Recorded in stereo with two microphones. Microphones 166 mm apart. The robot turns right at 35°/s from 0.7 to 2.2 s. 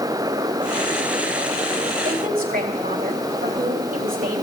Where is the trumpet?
No trumpet in this recording.